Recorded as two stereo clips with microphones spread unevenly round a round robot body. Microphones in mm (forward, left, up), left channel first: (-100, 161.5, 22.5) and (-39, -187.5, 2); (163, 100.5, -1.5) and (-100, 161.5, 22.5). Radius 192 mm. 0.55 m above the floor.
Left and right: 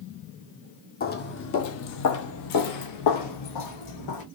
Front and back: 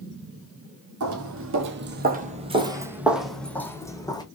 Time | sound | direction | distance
1.0 | footsteps | 160° left | 1.0 m